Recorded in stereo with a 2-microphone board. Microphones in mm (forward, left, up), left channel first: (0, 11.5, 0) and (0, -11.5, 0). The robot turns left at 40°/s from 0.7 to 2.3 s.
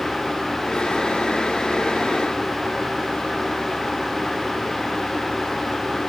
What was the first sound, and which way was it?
Only background noise.